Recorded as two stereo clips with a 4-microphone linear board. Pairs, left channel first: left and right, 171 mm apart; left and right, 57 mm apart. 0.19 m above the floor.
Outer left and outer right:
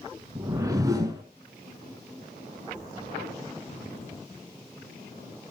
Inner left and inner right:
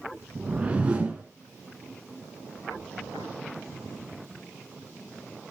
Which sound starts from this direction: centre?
A whoosh, at 0.3 s.